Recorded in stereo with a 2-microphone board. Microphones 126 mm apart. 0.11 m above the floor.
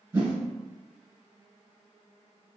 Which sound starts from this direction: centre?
A whoosh, at 0.1 s.